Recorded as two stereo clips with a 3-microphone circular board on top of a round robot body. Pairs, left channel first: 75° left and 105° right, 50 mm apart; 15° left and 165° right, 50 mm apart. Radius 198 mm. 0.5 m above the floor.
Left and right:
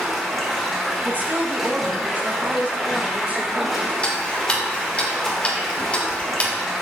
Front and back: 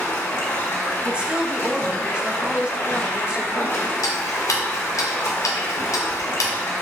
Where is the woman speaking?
110° right, 1.2 m.